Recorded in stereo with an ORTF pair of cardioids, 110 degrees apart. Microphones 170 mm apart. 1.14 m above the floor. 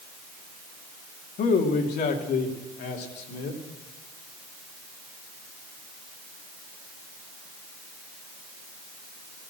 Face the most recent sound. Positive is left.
turn(degrees=75)